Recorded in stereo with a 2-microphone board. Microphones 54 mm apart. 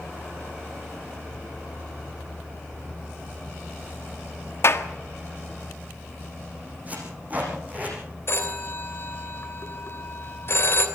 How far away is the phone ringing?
About 2.5 m.